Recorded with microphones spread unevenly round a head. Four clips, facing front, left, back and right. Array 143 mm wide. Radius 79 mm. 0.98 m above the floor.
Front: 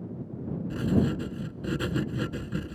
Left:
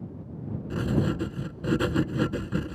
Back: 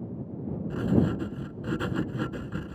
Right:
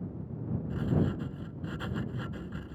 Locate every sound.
0.7 s writing: 80° left